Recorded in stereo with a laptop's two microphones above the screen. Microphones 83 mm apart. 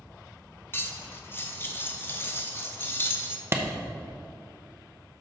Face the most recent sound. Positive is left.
turn(degrees=-30)  # may be behind; listen again after turning